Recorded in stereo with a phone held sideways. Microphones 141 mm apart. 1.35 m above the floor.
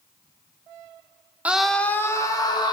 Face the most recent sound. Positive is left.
turn(degrees=30)  # may be behind; listen again after turning